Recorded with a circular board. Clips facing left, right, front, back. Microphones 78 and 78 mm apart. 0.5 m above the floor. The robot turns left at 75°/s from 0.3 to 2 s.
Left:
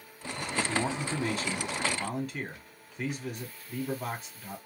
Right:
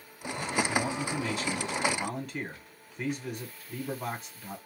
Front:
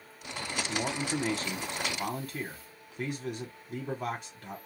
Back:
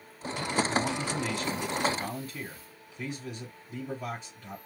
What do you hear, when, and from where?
0.7 s a man speaking: 95° left, 1.2 m; by 4.6 s 5° right, 1.2 m